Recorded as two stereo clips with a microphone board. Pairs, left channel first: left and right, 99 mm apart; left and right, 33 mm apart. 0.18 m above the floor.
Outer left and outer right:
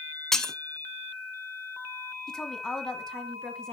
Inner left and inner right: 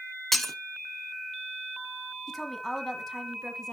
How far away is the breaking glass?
About 0.6 m.